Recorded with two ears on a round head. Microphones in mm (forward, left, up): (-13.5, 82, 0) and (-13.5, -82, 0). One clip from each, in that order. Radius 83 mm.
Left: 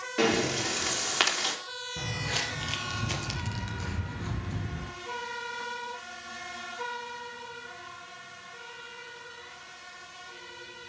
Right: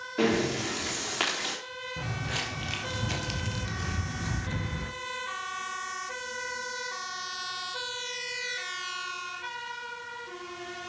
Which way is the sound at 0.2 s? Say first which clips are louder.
Left 1 dB; 45° left (ahead or behind).